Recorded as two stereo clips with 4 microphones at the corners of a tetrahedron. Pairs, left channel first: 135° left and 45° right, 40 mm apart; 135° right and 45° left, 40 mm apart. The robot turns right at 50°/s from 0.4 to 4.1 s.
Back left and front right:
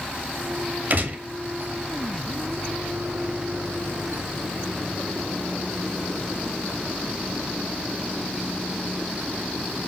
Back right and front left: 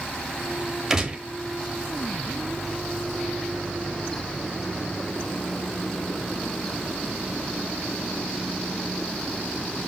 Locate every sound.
0.9 s a gunshot: 30° right, 0.8 m; by 1.2 s 15° right, 0.8 m